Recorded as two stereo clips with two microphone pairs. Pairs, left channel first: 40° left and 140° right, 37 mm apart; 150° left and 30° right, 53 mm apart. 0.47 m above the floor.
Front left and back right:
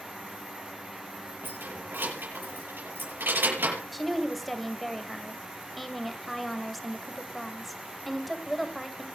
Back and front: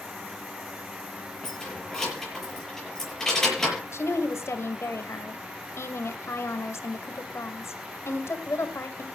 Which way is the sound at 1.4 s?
130° right.